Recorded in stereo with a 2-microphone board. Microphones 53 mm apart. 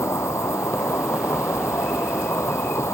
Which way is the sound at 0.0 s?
70° left (ahead or behind).